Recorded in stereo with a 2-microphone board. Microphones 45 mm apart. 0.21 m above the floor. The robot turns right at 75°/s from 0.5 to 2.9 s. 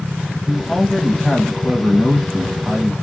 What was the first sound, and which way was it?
A man speaking, centre (ahead or behind).